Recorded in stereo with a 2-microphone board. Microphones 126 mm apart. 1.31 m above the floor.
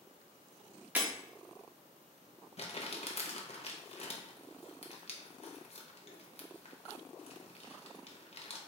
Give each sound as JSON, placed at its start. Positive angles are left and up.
{"t": 0.9, "sound": "breaking glass", "side_deg": -15, "distance_m": 1.0}
{"t": 2.6, "sound": "crumpling", "side_deg": 55, "distance_m": 0.8}